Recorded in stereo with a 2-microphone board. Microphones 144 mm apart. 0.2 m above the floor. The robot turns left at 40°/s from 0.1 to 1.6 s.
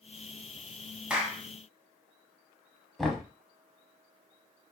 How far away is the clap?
About 0.9 m.